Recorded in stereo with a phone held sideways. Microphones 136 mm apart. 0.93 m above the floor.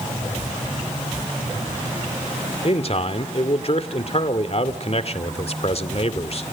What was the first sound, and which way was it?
A man speaking, 50° left (ahead or behind).